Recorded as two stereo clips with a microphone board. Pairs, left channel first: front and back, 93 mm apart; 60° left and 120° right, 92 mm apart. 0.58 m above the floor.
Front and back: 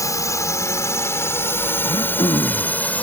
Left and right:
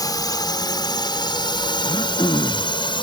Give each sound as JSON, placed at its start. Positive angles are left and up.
{"t": 0.0, "sound": "a drone", "azimuth_deg": 40}
{"t": 1.9, "sound": "throat clearing", "azimuth_deg": 25}